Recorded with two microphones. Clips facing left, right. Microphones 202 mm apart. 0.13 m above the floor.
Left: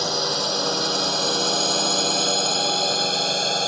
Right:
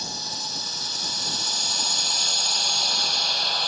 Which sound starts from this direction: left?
A drone, at 0.0 s.